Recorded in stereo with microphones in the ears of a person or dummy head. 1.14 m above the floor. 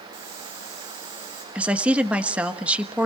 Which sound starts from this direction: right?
A hiss, at 0.1 s.